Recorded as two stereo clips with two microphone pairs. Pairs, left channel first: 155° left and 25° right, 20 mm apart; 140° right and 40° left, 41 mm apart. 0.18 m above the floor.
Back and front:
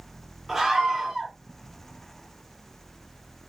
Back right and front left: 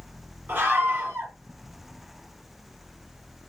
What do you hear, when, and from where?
0.5 s a scream: 45° left, 2.5 m